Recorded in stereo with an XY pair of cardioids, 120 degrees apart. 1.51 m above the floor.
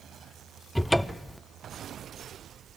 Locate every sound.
0.8 s a cupboard door: 5° left, 0.6 m